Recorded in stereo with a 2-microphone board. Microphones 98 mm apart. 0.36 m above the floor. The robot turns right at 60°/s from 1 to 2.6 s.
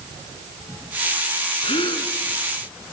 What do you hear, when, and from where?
1.6 s a gasp: 75° left (ahead or behind), 3 m; by 2.1 s 50° left (ahead or behind), 3 m